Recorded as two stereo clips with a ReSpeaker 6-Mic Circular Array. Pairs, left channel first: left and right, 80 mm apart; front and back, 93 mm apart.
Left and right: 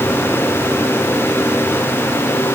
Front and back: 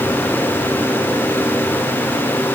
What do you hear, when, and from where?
Only background noise.